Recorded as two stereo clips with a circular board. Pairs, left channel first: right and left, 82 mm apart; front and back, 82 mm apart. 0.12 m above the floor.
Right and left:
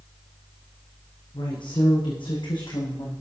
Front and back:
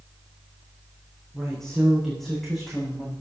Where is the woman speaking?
85° right, 7 m; by 3.1 s 90° right, 7 m.